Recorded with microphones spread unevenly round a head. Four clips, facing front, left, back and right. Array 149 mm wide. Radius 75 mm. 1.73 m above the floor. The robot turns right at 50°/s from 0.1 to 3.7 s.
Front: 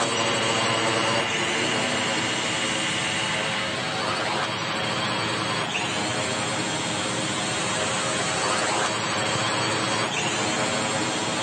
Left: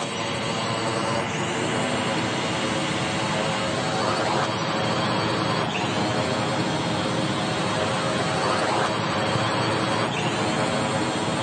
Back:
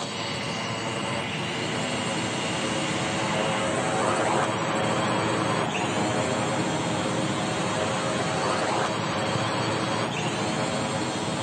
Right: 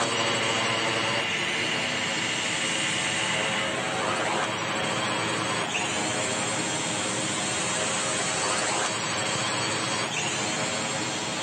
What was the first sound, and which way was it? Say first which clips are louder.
A drone: right 1 dB, front 7 dB; 15° right.